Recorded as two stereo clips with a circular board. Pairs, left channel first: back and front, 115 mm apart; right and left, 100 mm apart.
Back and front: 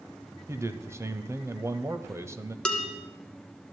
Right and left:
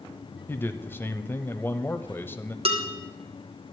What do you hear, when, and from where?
0.5 s a man speaking: 45° right, 1.0 m
2.6 s dishes clattering: 95° left, 2.5 m